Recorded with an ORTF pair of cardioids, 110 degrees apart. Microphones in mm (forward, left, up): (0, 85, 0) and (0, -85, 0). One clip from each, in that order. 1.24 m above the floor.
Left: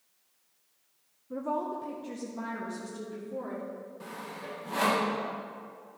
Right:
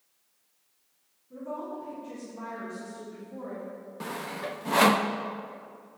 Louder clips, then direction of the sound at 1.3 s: Left 4 dB; 65° left.